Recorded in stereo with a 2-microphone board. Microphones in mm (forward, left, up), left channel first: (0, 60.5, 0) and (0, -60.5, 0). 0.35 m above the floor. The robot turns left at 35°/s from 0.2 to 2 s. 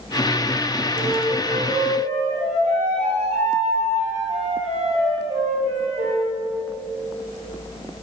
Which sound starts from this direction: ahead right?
A flute, at 0.9 s.